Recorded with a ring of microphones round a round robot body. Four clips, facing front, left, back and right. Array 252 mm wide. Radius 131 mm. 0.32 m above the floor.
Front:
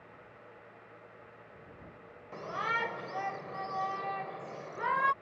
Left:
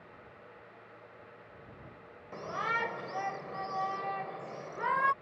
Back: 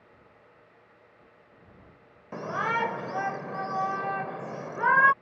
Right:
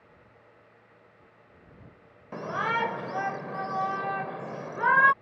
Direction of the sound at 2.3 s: 145° right.